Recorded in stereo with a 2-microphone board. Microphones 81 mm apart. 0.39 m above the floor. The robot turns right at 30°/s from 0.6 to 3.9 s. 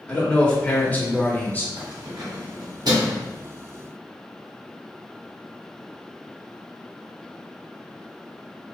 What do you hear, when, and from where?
0.1 s a man speaking: 15° left (ahead or behind), 1.2 m; by 1.7 s 25° left (ahead or behind), 1.2 m
1.8 s keys jangling: 70° right (ahead or behind), 1.9 m; by 3.2 s 55° right (ahead or behind), 1.9 m